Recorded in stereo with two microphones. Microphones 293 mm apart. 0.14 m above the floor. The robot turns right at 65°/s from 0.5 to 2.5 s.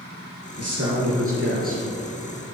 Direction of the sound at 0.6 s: 105° right.